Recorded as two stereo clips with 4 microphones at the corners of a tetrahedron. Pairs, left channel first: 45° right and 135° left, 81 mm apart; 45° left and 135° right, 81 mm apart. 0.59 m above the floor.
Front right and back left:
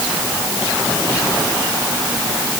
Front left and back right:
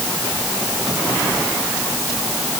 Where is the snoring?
No snoring in this recording.